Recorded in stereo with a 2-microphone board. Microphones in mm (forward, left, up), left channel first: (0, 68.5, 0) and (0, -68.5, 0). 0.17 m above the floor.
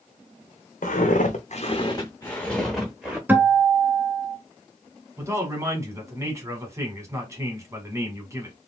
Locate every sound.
0.8 s footsteps: 85° left, 1.0 m; by 3.2 s 5° right (ahead or behind), 1.7 m
3.3 s a guitar: 15° right (ahead or behind), 0.7 m
5.2 s a man speaking: 20° right (ahead or behind), 1.2 m